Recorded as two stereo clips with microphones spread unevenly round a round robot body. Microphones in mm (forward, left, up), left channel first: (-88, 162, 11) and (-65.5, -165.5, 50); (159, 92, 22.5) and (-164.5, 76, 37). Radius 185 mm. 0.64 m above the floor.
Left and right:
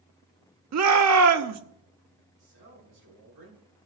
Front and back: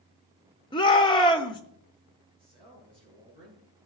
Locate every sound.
0.7 s a shout: 65° right, 1.0 m
2.4 s a man speaking: 100° right, 6 m